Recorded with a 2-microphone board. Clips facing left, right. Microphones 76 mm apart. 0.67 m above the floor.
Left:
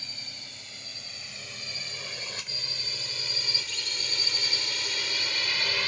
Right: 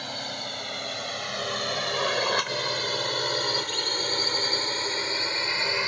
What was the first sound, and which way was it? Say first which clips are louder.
A drone: right 13 dB; 60° right (ahead or behind).